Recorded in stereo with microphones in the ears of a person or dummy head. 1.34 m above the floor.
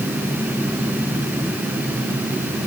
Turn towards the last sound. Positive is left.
No sound to turn to.